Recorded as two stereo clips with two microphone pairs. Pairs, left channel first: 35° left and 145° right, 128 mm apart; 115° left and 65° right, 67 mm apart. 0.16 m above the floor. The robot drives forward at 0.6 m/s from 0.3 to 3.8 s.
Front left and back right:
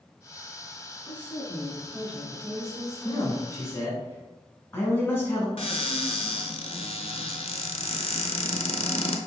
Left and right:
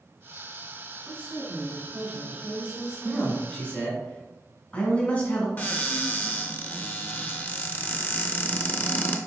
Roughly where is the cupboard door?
Ahead left.